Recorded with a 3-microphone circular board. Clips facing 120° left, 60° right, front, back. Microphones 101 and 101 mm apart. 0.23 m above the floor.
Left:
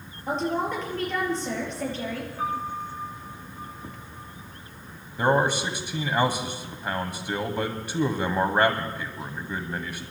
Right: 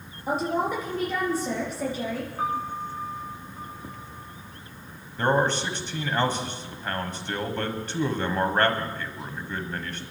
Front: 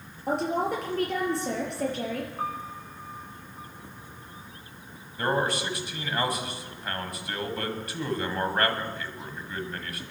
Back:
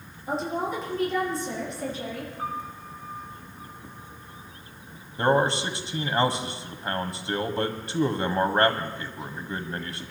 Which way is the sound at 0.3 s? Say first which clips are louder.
Right 1 dB, front 2 dB; 20° left.